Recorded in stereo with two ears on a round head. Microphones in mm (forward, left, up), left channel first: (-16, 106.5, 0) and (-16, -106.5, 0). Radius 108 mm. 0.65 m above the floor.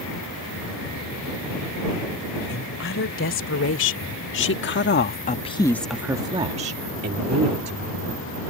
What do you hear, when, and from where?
2.5 s a woman speaking: 60° left (ahead or behind); by 8.2 s 45° right (ahead or behind)